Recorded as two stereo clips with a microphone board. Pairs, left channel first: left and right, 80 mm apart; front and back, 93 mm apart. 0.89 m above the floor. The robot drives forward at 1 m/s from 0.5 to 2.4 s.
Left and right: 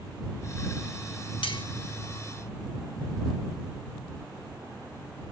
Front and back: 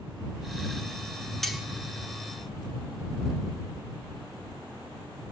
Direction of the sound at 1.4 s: 85° left.